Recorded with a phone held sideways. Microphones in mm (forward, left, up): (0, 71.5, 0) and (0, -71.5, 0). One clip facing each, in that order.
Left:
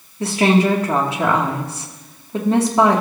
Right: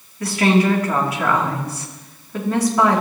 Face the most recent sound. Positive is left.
turn(degrees=25)  # may be behind; listen again after turning